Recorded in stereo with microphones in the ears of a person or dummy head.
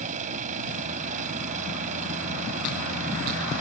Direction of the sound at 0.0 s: 40° right (ahead or behind).